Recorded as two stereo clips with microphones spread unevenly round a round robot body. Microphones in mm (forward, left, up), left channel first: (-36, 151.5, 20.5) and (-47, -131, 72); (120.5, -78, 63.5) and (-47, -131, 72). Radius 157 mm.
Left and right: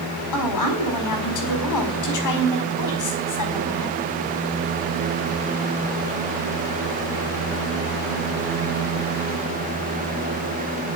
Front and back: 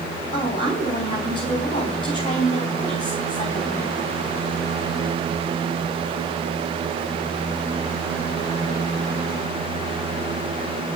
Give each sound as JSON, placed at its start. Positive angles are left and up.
{"t": 0.3, "sound": "a woman speaking", "azimuth_deg": 85, "distance_m": 4.5}